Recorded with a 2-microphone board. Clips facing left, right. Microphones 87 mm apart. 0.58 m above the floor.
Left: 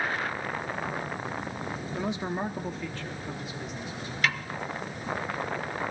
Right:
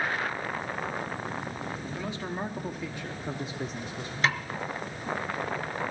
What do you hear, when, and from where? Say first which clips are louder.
1.9 s a man speaking: left 5 dB; 25° left (ahead or behind), 1.3 m; by 4.1 s 45° right (ahead or behind), 1.8 m
4.2 s a snare drum: right 2 dB; 25° right (ahead or behind), 0.8 m